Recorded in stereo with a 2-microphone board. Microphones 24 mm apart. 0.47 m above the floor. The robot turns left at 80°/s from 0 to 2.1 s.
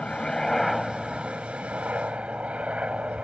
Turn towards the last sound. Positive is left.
turn(degrees=-115)